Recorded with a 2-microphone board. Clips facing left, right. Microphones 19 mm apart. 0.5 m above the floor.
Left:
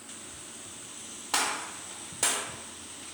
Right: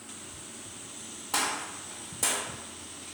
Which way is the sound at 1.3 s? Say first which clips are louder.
Left 1 dB; 25° left (ahead or behind).